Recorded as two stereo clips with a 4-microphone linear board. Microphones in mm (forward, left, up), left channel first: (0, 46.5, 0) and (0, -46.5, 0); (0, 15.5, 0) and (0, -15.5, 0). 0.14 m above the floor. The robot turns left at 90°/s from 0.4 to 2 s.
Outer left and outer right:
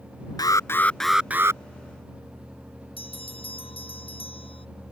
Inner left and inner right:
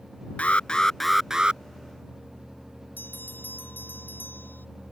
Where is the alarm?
60° left; by 1.6 s 45° right.